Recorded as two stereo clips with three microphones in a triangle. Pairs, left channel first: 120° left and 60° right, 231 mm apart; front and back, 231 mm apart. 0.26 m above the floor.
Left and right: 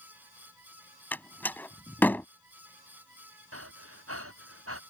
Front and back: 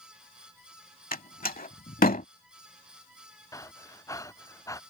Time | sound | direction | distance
1.1 | a door slam | 40° left | ?
3.5 | breathing | 75° right | ?